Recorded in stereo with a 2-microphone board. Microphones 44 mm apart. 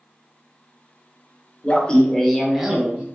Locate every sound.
1.6 s laughter: 30° left (ahead or behind), 0.8 m; by 3.0 s 25° right (ahead or behind), 0.8 m